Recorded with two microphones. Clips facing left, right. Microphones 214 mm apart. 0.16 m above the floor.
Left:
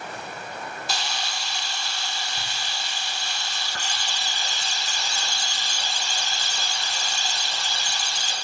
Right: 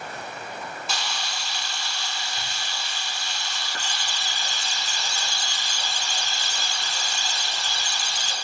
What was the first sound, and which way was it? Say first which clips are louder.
A camera shutter: left 1 dB; 35° left (ahead or behind).